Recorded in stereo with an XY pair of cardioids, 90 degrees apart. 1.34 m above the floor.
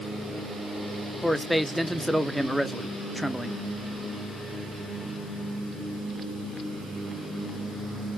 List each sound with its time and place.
1.2 s a man speaking: 5° left, 0.7 m